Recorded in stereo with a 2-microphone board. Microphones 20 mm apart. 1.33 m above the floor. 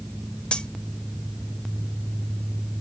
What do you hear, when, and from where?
0.5 s cutlery clinking: 60° left (ahead or behind), 0.9 m